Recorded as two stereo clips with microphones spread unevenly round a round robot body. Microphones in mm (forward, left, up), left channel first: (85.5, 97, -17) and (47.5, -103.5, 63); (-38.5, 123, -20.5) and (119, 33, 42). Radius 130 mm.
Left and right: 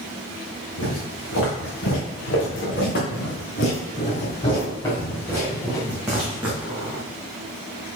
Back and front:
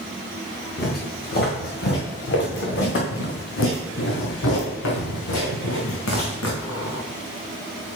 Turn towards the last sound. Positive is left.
turn(degrees=-175)